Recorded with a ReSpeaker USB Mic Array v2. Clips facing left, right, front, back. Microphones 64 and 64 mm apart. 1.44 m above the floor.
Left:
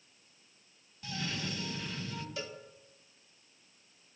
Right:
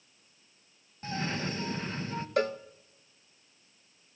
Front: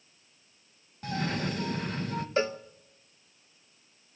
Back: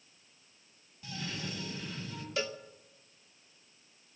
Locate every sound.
1.0 s a cough: 35° right, 1.6 m
2.4 s a cowbell: 55° right, 0.7 m